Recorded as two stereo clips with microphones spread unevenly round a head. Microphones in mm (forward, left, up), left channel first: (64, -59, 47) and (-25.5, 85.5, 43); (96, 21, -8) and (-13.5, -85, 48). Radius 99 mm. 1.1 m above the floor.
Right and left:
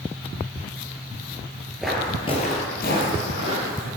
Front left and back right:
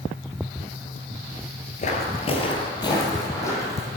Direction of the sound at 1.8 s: 45° left.